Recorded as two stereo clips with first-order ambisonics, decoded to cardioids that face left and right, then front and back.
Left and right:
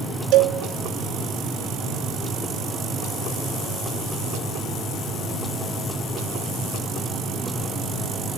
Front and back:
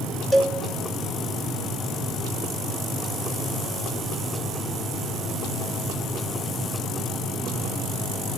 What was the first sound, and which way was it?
A cowbell, 80° right.